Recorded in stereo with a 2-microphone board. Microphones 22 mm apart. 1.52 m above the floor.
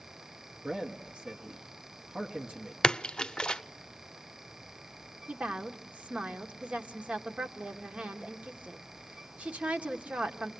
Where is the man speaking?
60° right (ahead or behind), 1.4 m.